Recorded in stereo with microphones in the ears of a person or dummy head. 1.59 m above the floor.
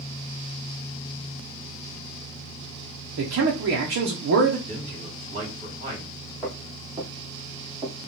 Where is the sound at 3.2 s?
60° right (ahead or behind), 0.8 m.